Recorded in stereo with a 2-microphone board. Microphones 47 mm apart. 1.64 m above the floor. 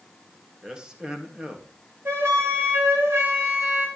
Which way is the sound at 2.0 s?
70° right (ahead or behind).